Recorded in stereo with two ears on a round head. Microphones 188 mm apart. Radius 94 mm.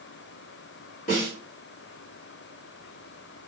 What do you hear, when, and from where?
1.1 s a snare drum: 40° left (ahead or behind), 1.6 m